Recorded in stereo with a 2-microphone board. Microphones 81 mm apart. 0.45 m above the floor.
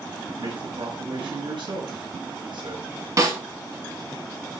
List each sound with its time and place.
0.4 s a man speaking: 70° right (ahead or behind), 5.5 m
3.2 s a snare drum: 40° right (ahead or behind), 2 m